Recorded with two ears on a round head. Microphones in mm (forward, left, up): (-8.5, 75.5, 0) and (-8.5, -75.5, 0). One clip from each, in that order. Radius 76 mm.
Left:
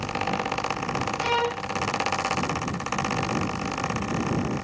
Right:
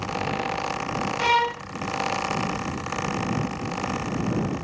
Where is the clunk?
No clunk in this recording.